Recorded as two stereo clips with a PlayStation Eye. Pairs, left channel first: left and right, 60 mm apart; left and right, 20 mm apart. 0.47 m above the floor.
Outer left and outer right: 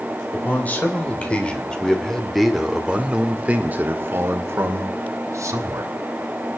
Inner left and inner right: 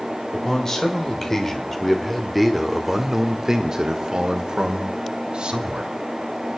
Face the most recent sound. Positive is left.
turn(degrees=-60)  # may be behind; listen again after turning